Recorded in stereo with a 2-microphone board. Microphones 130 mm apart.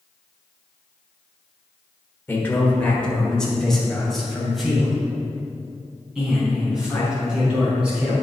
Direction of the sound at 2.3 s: 15° left (ahead or behind).